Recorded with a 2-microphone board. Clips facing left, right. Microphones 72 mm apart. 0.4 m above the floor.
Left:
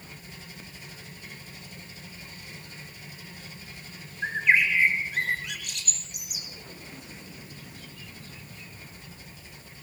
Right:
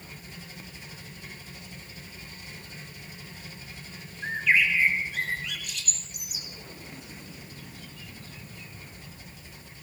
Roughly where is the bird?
Left.